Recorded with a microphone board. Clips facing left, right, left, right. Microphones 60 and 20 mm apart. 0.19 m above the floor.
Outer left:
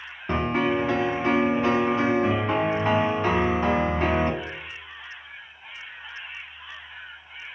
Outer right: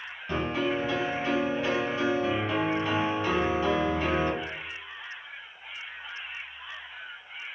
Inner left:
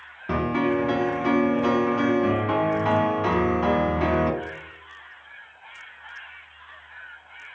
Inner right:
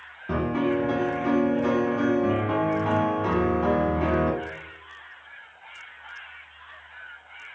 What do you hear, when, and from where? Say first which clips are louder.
0.3 s a piano: outer left 5 dB, inner left 2 dB; 40° left (ahead or behind), 0.6 m